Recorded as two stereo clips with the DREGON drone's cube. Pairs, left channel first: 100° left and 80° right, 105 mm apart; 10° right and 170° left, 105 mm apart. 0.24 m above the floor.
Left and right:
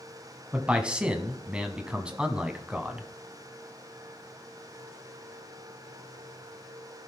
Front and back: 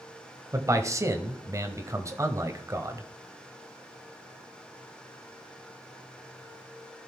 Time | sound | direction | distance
0.5 | a man speaking | 155° right | 1.2 m